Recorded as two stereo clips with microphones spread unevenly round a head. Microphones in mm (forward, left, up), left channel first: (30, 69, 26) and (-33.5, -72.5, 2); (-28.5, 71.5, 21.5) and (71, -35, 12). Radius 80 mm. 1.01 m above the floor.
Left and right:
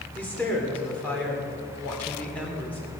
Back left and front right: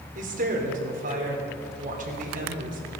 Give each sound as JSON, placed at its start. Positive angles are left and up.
{"t": 0.1, "sound": "a woman speaking", "azimuth_deg": -15, "distance_m": 3.0}